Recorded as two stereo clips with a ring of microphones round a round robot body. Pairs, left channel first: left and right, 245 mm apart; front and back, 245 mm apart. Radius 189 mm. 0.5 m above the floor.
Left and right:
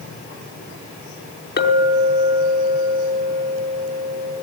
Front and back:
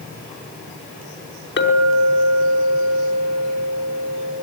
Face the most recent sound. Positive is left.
turn(degrees=40)